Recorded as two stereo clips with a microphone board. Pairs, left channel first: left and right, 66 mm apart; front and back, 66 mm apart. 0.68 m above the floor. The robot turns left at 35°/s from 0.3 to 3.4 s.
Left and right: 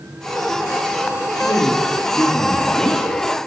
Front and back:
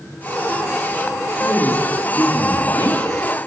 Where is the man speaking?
60° left, 2.5 m; by 3.0 s straight ahead, 2.5 m.